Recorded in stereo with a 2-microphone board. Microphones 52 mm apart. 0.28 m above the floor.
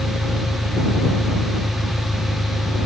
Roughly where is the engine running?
Left.